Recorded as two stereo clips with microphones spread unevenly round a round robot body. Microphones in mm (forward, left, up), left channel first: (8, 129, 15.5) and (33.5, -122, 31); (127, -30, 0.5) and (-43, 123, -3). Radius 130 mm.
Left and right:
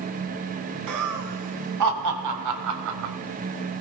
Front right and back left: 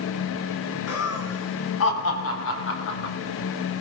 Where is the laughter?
80° right, 4.5 m; by 3.1 s 90° right, 2.5 m.